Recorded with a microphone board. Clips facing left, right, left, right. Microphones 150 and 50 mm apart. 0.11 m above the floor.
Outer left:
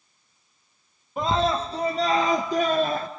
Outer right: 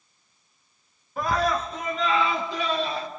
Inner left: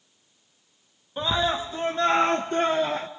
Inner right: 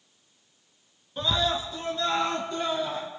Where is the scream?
20° left (ahead or behind), 1.2 m; by 3.1 s 50° left (ahead or behind), 1.8 m.